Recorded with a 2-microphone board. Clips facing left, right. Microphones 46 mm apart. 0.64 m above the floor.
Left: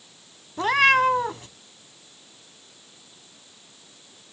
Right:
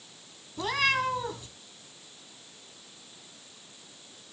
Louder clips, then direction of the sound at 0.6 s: Left 9 dB; 45° left (ahead or behind).